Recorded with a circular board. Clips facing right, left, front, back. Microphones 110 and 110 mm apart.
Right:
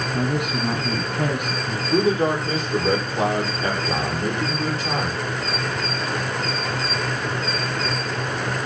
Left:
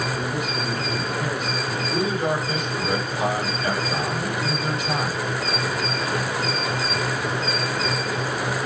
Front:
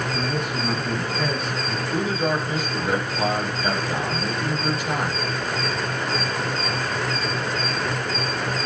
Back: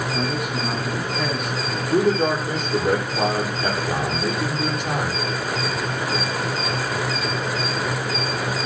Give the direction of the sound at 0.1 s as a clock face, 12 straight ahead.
3 o'clock.